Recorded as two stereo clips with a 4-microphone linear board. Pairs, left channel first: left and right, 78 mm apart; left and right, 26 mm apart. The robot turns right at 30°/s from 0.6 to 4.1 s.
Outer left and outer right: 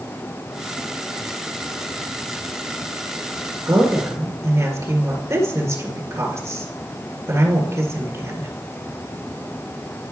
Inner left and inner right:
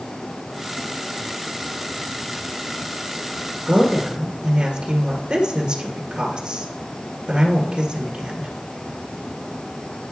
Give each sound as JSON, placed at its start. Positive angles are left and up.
{"t": 3.7, "sound": "a woman speaking", "side_deg": -35, "distance_m": 1.7}